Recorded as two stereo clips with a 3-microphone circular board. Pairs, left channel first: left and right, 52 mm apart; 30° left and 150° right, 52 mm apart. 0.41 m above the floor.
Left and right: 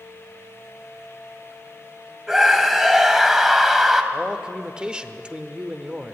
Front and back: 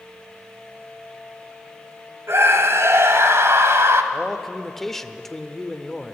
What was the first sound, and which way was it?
A scream, 170° right.